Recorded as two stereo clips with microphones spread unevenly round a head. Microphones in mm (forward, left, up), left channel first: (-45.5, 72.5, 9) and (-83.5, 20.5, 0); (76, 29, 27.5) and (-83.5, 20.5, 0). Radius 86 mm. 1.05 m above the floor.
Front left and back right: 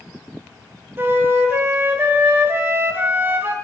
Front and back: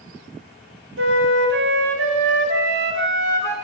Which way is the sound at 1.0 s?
175° left.